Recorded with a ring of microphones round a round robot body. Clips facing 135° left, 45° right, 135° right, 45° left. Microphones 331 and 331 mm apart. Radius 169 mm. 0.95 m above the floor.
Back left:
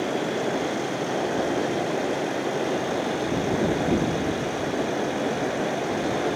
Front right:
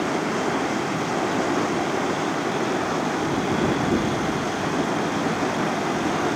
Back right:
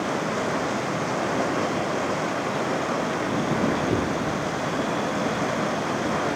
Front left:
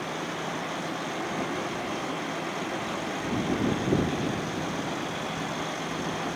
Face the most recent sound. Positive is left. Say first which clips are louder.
# front right 1 dB, back right 8 dB
turn(degrees=-110)